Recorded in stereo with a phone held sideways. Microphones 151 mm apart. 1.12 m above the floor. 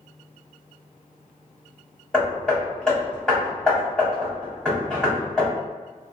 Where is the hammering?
5° left (ahead or behind), 1.5 m.